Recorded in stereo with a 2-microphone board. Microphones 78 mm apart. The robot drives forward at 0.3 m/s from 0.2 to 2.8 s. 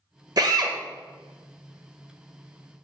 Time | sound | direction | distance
0.4 | a drill | 55° right (ahead or behind) | 0.6 m